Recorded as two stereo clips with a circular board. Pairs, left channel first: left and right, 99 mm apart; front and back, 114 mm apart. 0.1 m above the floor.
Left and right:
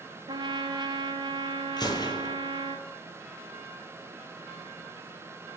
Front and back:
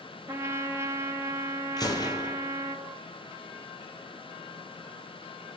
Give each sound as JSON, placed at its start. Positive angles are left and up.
{"t": 0.3, "sound": "a trumpet", "azimuth_deg": -120, "distance_m": 0.5}
{"t": 1.8, "sound": "a gunshot", "azimuth_deg": 50, "distance_m": 0.8}